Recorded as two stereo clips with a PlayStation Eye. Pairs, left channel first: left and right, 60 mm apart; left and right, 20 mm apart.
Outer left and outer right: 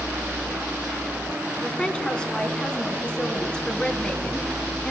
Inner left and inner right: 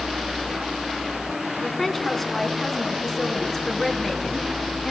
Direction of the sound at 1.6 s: 15° left (ahead or behind).